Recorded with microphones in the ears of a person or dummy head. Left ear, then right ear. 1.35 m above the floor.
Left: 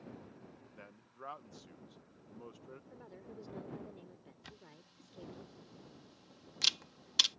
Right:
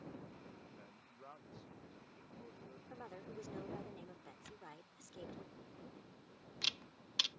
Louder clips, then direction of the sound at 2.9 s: Right 2 dB; 45° right (ahead or behind).